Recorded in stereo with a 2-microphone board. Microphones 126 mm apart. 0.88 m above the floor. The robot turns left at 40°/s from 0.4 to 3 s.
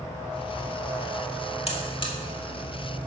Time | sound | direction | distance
1.7 | a buzzer | 55° left (ahead or behind) | 1.9 m